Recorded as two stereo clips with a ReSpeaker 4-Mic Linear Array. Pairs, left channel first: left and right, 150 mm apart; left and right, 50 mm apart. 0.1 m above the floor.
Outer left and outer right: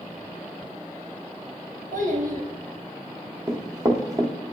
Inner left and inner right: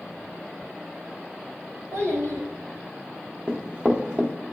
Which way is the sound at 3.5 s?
25° right (ahead or behind).